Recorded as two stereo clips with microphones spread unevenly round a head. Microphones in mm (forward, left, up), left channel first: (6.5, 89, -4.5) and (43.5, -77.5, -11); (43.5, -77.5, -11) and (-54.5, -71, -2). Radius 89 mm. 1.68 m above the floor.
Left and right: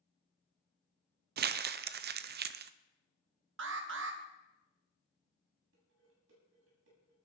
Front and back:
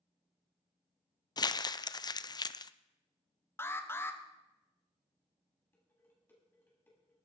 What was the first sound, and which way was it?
Crumpling, 55° right.